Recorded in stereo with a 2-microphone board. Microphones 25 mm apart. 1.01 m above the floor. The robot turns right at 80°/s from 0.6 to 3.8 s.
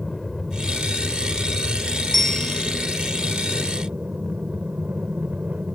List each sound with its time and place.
0.0 s an aircraft: 10° left; by 5.8 s 95° right
2.1 s a bell: 5° left; by 2.9 s 65° left